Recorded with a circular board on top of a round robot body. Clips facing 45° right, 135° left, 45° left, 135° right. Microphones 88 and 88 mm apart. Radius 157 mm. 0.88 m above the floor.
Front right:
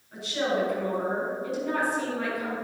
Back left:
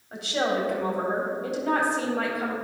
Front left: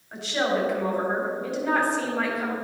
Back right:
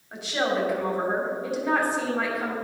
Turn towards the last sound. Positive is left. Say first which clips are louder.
# back left 1 dB, front left 1 dB
turn(degrees=145)